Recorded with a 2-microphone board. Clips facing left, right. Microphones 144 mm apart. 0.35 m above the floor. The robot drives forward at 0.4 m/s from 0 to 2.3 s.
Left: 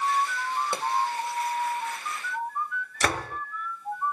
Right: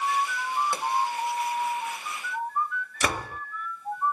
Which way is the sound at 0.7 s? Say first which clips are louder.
Even; 20° left (ahead or behind).